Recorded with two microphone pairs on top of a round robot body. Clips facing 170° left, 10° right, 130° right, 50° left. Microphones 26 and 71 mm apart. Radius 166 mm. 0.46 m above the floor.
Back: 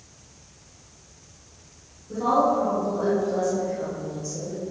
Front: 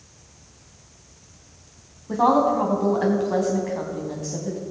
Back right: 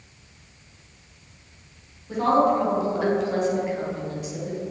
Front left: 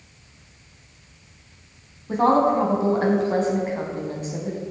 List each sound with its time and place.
2.1 s a woman speaking: straight ahead, 4.5 m